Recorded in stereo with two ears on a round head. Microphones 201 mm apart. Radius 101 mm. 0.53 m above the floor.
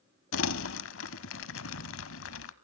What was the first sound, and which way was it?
Crumpling, 60° left (ahead or behind).